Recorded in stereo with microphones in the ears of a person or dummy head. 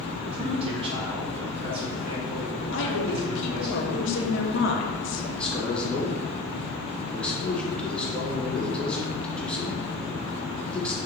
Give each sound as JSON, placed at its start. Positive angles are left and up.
{"t": 0.3, "sound": "a man speaking", "side_deg": -30, "distance_m": 1.2}
{"t": 2.7, "sound": "a woman speaking", "side_deg": 60, "distance_m": 0.9}
{"t": 5.4, "sound": "a man speaking", "side_deg": 10, "distance_m": 1.2}